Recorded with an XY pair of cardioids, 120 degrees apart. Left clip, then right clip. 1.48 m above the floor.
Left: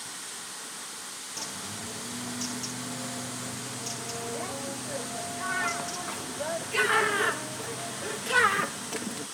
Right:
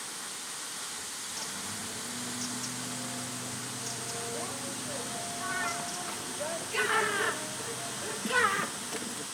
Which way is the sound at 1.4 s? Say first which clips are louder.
Left 3 dB; 20° left.